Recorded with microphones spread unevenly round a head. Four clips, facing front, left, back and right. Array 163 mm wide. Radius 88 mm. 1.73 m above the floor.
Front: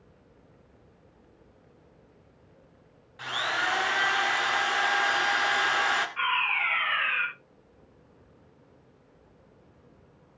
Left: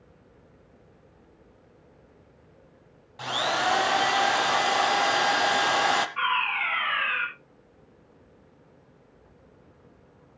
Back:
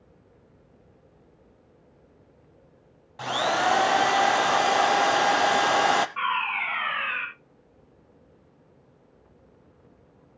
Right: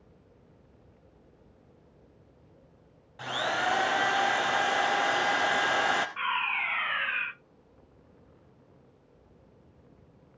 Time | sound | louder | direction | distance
3.2 | a drill | left 3 dB, back 6 dB | 175° left | 0.9 m
6.2 | a fire alarm | left 4 dB, back 2 dB | 175° right | 6 m